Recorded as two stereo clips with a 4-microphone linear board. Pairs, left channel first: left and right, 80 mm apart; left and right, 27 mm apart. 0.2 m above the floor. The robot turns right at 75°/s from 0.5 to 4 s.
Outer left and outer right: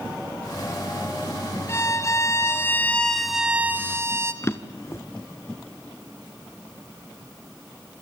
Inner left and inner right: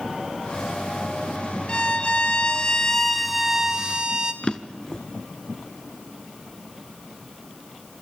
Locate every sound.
1.7 s a violin: 65° left, 1.7 m; by 4.3 s 125° right, 1.7 m
4.4 s a drawer: 35° left (ahead or behind), 1.6 m